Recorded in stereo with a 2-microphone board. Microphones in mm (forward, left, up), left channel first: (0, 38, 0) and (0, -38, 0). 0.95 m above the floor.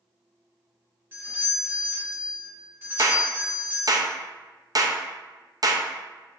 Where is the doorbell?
30° right (ahead or behind), 1.3 m.